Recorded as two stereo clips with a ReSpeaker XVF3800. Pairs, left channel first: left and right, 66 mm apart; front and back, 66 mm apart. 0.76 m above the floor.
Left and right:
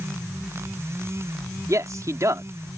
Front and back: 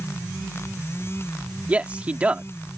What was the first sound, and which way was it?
A man speaking, 110° right.